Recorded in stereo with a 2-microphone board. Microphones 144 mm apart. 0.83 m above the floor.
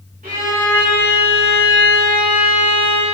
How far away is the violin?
About 1.7 m.